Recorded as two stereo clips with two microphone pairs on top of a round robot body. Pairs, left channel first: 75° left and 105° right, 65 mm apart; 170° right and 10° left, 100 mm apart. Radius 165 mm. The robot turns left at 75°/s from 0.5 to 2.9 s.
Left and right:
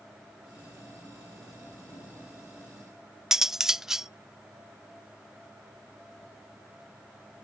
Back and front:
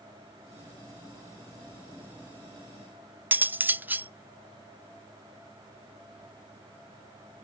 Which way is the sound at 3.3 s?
25° right.